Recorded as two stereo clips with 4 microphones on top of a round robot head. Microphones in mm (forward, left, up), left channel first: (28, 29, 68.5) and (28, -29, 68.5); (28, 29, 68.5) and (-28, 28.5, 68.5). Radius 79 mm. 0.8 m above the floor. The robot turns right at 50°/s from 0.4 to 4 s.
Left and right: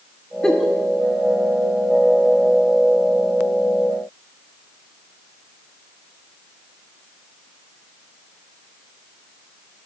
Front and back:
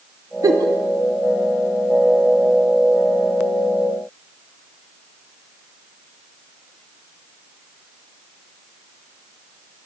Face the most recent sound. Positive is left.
turn(degrees=-10)